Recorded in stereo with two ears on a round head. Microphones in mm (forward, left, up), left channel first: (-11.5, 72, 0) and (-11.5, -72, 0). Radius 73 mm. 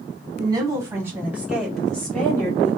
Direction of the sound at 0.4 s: 25° right (ahead or behind).